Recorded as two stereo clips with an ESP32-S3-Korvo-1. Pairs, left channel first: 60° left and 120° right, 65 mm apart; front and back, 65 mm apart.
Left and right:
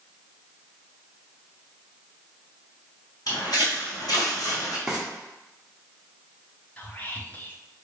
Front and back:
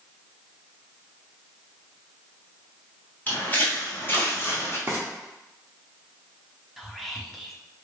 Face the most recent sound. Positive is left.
turn(degrees=95)